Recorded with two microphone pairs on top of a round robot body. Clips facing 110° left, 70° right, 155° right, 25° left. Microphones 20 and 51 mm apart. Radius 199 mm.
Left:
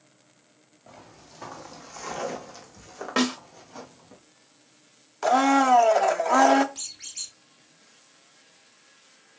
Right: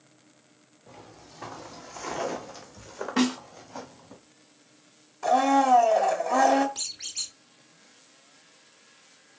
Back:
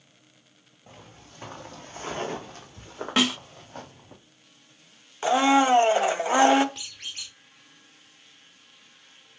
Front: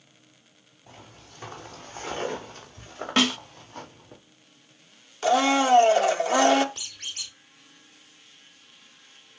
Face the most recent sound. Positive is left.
turn(degrees=-155)